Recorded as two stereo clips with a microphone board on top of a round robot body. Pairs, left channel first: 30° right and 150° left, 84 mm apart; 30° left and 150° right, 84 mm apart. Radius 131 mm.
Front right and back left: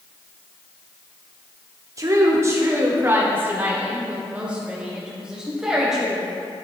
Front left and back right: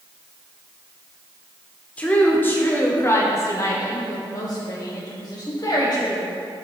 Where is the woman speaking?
100° left, 1.8 m; by 6.2 s 65° left, 3.5 m.